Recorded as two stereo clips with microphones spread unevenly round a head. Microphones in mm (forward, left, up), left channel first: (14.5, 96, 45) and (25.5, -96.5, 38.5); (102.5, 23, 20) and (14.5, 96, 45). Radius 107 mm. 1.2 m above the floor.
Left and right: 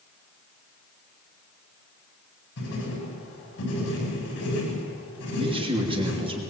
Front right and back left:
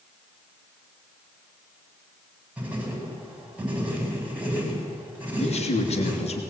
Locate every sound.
2.6 s writing: 65° left, 9 m
5.4 s a man speaking: 25° right, 3 m